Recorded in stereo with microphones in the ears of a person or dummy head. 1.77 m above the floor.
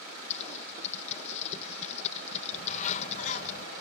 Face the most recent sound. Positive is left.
turn(degrees=45)  # may be behind; listen again after turning